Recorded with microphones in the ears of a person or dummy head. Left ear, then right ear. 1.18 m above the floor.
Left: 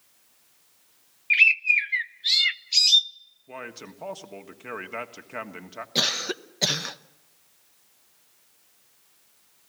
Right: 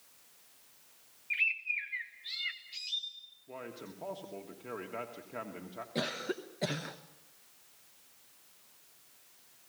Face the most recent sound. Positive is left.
turn(degrees=45)  # may be behind; listen again after turning